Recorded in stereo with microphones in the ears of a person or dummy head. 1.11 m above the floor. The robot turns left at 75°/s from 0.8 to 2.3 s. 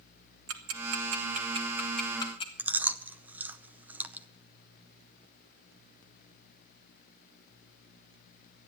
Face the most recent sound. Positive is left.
turn(degrees=-10)  # may be behind; listen again after turning